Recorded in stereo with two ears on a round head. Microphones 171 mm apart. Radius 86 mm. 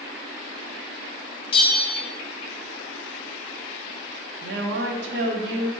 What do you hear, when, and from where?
1.5 s a bell: 30° left (ahead or behind), 0.6 m
4.4 s a woman speaking: 60° right (ahead or behind), 0.8 m